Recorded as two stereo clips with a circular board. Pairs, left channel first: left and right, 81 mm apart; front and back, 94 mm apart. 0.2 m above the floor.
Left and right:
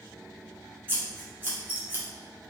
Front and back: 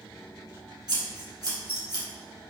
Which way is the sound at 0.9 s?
150° right.